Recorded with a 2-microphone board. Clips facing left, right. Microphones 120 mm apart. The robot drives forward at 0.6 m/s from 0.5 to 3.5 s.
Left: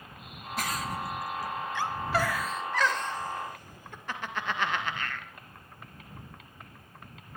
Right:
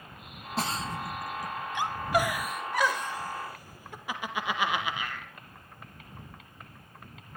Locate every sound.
0.6 s a giggle: 30° right (ahead or behind), 0.7 m; by 5.3 s 10° right (ahead or behind), 2 m